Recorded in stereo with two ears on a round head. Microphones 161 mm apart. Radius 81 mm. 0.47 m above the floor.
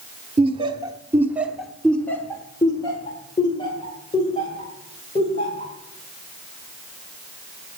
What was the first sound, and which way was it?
Laughter, 35° right (ahead or behind).